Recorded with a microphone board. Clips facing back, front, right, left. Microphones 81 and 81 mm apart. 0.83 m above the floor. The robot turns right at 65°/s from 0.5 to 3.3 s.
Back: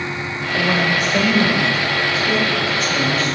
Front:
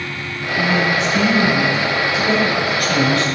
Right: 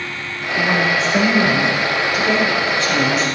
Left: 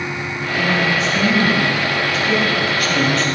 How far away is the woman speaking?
About 4 m.